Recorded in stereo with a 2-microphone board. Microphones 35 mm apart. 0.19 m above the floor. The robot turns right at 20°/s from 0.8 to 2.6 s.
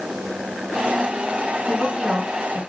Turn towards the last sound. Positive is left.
turn(degrees=-45)  # may be behind; listen again after turning